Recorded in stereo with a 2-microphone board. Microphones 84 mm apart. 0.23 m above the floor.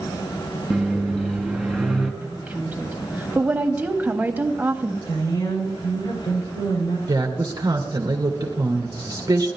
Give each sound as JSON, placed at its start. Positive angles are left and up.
{"t": 0.7, "sound": "a microwave", "side_deg": 0, "distance_m": 1.7}
{"t": 2.2, "sound": "a woman speaking", "side_deg": -20, "distance_m": 1.4}
{"t": 5.1, "sound": "a woman speaking", "side_deg": 65, "distance_m": 7.5}
{"t": 7.1, "sound": "a woman speaking", "side_deg": -40, "distance_m": 2.0}